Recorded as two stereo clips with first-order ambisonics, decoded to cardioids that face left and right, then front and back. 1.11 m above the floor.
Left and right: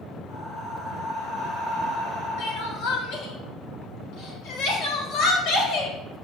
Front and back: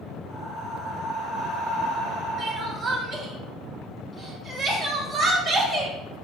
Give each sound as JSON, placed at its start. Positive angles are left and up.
{"t": 0.3, "sound": "breathing", "azimuth_deg": 50, "distance_m": 3.0}
{"t": 2.4, "sound": "crying", "azimuth_deg": 110, "distance_m": 1.2}